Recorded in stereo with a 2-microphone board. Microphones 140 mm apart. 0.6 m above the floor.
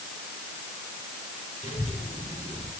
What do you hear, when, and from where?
1.6 s a child speaking: 50° left (ahead or behind), 6.5 m; by 2.7 s 55° left (ahead or behind), 7.5 m